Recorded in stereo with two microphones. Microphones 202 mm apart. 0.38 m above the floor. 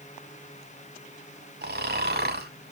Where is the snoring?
55° right (ahead or behind), 0.9 m.